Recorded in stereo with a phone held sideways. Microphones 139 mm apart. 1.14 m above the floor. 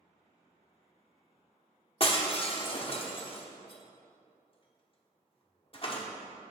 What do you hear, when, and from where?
2.0 s breaking glass: 40° left (ahead or behind), 1.0 m